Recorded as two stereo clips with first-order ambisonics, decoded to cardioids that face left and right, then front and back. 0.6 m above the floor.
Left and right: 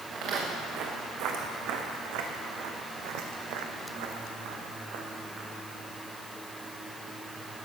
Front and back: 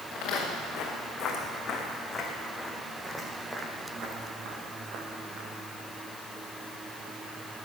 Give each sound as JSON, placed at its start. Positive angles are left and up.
{"t": 0.1, "sound": "footsteps", "azimuth_deg": -50, "distance_m": 3.5}